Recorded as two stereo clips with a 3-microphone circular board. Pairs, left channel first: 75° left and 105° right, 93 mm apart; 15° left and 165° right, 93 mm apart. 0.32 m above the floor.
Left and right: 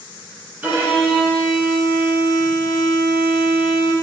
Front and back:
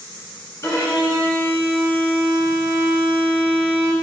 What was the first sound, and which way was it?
A violin, 40° right.